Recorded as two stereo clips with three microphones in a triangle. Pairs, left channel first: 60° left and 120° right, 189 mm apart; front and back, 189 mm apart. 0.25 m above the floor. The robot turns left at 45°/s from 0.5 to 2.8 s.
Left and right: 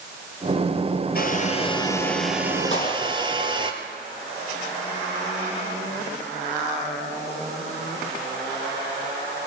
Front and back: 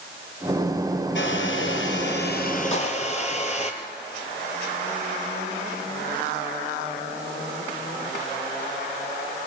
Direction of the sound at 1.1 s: 20° left.